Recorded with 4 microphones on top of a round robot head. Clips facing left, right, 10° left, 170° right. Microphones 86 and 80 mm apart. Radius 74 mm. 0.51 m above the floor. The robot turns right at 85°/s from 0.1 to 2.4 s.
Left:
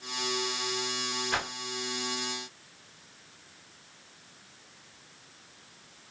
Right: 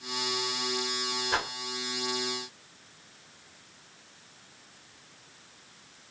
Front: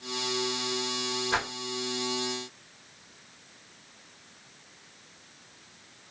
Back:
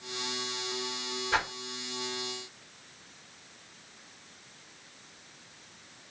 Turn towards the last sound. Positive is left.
turn(degrees=35)